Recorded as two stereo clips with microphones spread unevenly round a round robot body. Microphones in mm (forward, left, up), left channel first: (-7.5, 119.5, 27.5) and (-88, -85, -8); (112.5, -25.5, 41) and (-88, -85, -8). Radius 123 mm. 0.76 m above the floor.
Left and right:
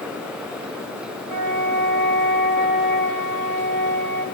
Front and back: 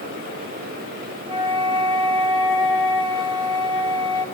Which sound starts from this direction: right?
A flute, at 1.3 s.